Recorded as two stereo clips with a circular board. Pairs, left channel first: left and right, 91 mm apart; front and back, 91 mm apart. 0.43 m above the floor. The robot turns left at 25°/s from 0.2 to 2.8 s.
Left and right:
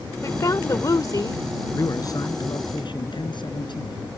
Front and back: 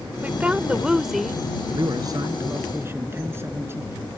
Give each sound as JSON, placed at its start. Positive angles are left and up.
{"t": 0.2, "sound": "a woman speaking", "azimuth_deg": 120}
{"t": 1.7, "sound": "a man speaking", "azimuth_deg": 145}